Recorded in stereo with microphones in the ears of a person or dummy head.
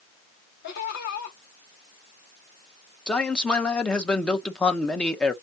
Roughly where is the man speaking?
Centre.